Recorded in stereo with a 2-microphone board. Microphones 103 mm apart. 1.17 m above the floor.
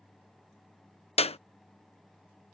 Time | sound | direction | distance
1.2 | a clap | 85° left | ?